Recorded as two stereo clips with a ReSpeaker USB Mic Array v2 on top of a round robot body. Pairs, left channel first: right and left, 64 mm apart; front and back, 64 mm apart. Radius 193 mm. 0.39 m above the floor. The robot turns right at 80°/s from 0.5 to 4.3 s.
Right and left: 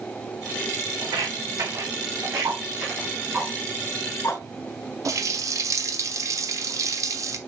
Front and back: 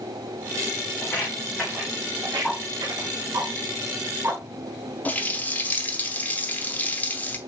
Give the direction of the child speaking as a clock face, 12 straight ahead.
I don't hear a child speaking.